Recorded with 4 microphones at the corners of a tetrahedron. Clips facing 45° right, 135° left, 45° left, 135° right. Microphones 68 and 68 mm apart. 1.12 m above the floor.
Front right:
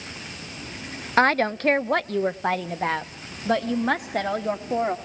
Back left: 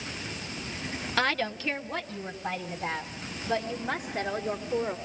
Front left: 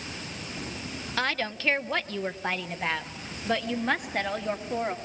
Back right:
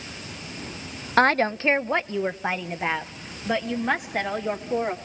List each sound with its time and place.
1.2 s a woman speaking: 95° right, 0.5 m; by 5.0 s 50° right, 2.5 m